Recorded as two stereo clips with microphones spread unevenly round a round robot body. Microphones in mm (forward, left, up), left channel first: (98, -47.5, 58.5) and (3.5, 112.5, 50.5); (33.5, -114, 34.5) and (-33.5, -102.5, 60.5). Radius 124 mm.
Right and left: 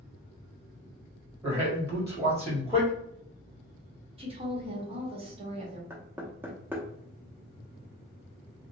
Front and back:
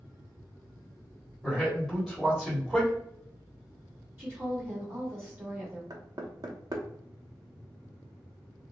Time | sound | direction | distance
1.4 | a man speaking | 55° left | 1.6 m
4.2 | a woman speaking | 100° left | 1.3 m
5.9 | knocking | 170° right | 0.7 m